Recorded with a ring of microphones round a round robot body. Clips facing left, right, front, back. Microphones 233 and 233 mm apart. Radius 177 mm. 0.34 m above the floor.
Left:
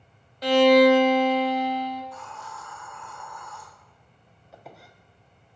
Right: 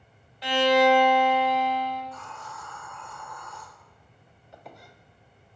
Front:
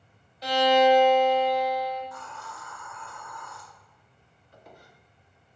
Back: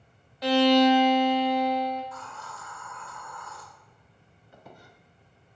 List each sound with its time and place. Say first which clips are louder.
0.4 s a violin: left 6 dB, back 2 dB; 145° left, 0.6 m
2.0 s a hiss: left 1 dB, even; 15° left, 2 m
4.5 s a squeak: even, back 1 dB; straight behind, 0.6 m